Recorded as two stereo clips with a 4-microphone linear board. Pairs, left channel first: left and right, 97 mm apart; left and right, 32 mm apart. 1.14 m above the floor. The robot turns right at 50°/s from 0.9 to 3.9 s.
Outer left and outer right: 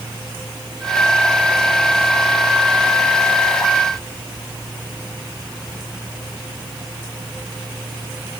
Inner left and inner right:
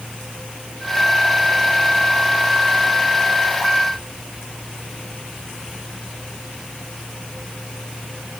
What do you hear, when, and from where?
Only background noise.